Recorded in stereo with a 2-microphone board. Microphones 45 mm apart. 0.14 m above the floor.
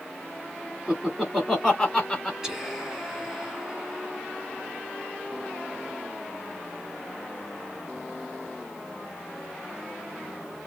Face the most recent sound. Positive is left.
turn(degrees=-10)  # may be behind; listen again after turning